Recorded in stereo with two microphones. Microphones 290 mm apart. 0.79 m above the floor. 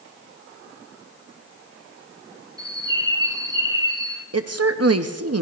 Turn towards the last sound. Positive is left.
turn(degrees=-55)  # may be behind; listen again after turning